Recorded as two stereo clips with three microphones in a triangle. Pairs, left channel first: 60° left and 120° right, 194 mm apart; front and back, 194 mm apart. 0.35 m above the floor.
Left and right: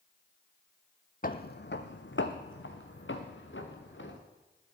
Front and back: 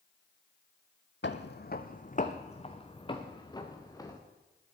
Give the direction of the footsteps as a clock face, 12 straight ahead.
11 o'clock.